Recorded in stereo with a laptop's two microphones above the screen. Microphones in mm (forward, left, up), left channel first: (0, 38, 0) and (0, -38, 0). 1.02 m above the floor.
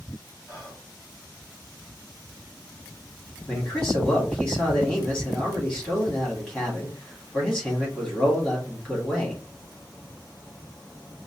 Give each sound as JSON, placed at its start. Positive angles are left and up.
{"t": 0.5, "sound": "whispering", "side_deg": 45, "distance_m": 1.9}
{"t": 3.5, "sound": "a man speaking", "side_deg": 15, "distance_m": 2.0}